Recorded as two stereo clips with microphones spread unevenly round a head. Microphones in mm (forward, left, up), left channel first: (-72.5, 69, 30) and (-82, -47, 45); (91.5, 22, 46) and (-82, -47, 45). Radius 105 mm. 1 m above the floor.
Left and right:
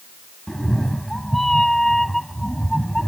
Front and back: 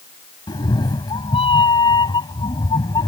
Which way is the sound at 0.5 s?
20° right.